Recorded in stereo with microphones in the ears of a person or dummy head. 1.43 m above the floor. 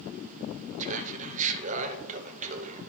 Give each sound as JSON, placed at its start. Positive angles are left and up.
{"t": 0.8, "sound": "laughter", "side_deg": -45, "distance_m": 0.7}